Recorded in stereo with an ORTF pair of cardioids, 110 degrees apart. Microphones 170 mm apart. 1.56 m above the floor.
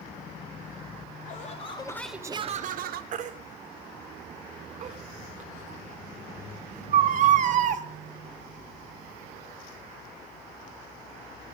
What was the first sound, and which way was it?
Laughter, 50° left.